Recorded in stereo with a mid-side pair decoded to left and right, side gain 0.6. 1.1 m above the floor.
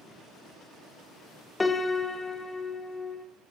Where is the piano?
15° left, 0.7 m.